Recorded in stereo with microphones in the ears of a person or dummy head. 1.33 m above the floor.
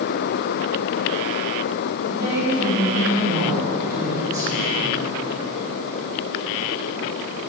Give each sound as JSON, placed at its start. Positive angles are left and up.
{"t": 2.0, "sound": "a woman speaking", "side_deg": -20, "distance_m": 3.5}